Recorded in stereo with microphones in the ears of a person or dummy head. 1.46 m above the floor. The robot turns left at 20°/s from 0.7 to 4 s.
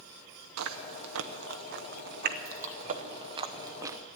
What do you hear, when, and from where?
0.6 s chewing: 75° right (ahead or behind), 0.7 m; by 4.0 s 10° right (ahead or behind), 0.7 m